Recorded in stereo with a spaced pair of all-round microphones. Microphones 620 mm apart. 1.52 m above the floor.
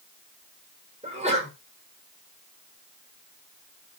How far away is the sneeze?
About 5.5 m.